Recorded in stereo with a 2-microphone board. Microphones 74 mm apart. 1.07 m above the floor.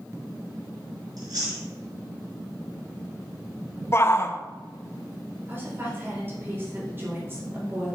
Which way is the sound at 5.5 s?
30° right (ahead or behind).